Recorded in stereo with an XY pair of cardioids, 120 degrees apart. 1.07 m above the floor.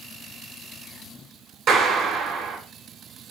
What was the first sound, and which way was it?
A clap, 50° right.